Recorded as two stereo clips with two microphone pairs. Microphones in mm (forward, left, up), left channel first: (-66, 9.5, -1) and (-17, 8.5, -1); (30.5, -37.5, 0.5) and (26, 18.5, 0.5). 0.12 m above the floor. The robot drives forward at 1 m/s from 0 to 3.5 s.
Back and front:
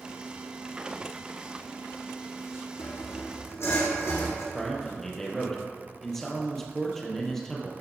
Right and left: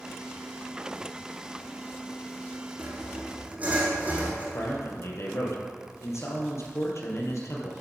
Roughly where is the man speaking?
Right.